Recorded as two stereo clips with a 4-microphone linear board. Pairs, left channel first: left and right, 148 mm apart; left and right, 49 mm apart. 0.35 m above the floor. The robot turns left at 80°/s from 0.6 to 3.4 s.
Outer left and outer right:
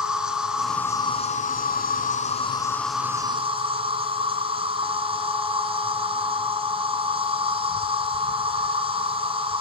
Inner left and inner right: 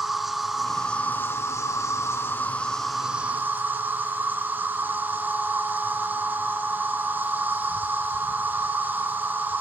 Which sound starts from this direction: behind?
An insect, at 0.0 s.